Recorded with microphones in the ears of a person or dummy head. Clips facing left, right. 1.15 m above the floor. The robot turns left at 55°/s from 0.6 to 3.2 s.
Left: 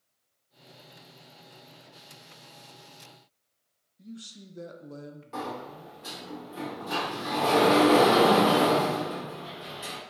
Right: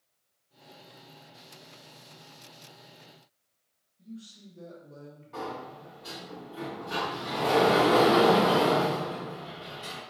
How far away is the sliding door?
About 0.9 m.